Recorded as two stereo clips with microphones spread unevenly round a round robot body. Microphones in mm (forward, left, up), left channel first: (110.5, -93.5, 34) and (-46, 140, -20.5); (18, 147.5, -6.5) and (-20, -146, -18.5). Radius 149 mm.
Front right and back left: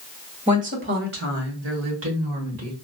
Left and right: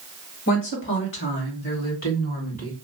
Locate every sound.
0.5 s a woman speaking: 100° left, 1.4 m; by 2.7 s 145° left, 2.5 m